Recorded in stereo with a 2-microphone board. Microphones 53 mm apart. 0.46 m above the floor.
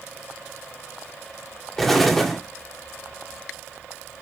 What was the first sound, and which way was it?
An explosion, 5° left (ahead or behind).